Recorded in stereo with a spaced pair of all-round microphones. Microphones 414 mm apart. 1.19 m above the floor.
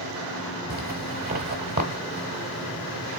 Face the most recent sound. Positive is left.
turn(degrees=-20)  # may be behind; listen again after turning